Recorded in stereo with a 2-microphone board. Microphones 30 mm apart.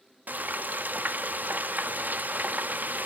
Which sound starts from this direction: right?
Frying, at 0.3 s.